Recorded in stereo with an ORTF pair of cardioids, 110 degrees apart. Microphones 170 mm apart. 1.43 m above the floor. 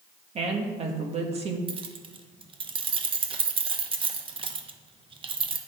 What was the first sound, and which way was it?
A woman speaking, 40° right.